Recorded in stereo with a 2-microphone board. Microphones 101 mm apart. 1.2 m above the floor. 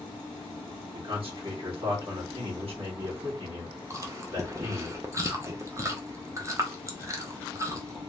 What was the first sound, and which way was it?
A man speaking, 65° right (ahead or behind).